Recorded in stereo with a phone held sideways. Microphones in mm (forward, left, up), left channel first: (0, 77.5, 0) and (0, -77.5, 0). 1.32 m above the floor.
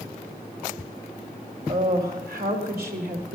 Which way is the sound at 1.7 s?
80° right.